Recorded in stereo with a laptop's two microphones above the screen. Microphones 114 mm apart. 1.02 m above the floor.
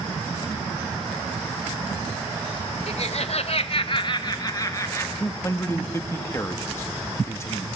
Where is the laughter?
60° left (ahead or behind), 1.1 m; by 5.1 s 25° left (ahead or behind), 2 m.